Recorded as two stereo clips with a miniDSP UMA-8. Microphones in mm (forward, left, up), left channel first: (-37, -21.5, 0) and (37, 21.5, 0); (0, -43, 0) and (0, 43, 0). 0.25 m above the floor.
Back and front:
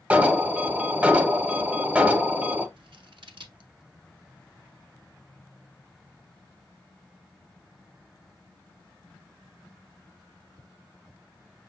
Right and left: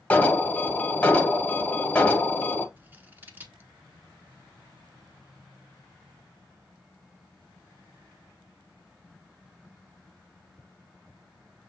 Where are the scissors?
20° left, 0.8 m.